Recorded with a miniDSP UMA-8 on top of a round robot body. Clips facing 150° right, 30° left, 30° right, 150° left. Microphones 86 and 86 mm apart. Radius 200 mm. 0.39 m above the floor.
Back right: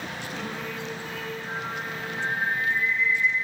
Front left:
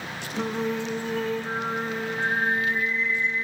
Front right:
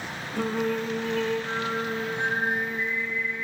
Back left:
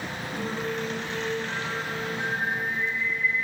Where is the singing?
25° right, 1.1 m.